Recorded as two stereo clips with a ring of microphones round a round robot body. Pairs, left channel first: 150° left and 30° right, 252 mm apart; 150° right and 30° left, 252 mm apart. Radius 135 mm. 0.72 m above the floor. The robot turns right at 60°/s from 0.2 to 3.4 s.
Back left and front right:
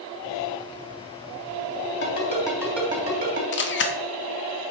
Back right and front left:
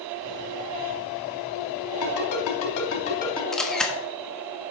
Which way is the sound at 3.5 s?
125° left.